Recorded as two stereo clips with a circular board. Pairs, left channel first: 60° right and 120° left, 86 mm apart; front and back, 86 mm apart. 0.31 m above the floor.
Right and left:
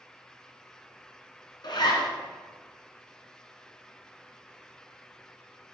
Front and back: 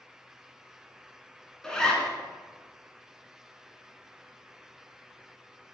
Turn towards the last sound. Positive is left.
turn(degrees=-80)